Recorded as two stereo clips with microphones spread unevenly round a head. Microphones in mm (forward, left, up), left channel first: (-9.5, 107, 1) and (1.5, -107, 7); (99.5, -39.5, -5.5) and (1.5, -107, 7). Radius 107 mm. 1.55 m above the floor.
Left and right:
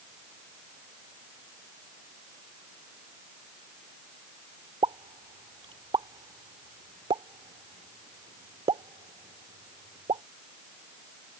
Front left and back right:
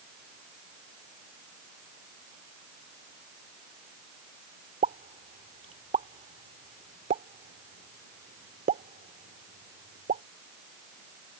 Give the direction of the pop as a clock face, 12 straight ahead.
5 o'clock.